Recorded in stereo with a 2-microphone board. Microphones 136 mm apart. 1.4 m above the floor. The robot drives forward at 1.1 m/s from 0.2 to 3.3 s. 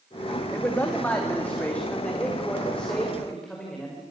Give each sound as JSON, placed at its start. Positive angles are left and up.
{"t": 0.5, "sound": "a man speaking", "side_deg": 15, "distance_m": 2.5}